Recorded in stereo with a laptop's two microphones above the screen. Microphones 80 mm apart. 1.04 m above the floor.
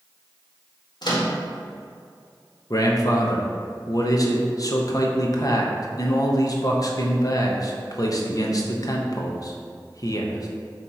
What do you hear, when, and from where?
1.0 s a microwave: 65° left (ahead or behind), 1.6 m
2.7 s a man speaking: 50° left (ahead or behind), 1.0 m